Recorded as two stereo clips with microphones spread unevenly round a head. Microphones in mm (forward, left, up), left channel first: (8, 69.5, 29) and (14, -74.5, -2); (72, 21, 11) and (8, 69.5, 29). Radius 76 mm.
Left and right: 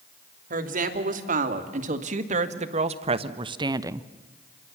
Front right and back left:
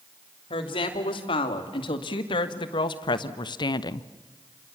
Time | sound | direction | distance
0.5 | a woman speaking | 60° right | 2.5 m